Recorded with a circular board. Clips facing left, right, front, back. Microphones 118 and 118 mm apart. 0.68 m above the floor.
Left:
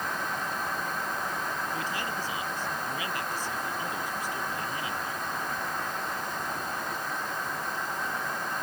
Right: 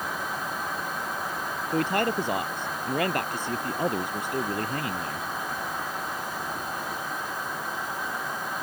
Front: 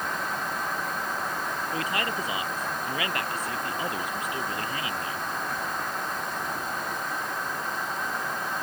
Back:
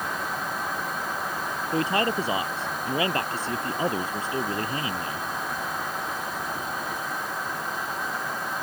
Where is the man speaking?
120° right.